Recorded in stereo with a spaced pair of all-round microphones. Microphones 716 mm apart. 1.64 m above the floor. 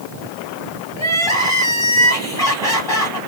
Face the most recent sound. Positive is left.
turn(degrees=5)  # may be behind; listen again after turning